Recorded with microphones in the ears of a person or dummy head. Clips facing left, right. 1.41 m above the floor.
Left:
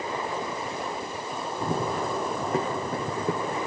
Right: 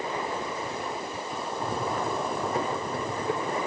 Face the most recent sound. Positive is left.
turn(degrees=50)  # may be behind; listen again after turning